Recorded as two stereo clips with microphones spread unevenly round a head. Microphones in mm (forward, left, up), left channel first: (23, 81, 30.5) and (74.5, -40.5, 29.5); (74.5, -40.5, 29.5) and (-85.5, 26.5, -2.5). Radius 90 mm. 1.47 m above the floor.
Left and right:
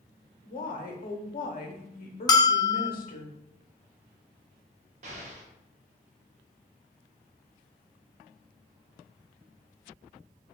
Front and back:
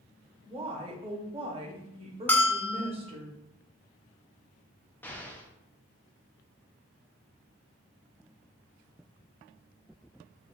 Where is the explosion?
90° right, 0.5 m.